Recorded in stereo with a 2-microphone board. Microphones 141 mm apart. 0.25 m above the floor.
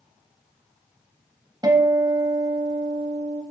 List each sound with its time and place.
1.6 s a guitar: 30° right (ahead or behind), 1.1 m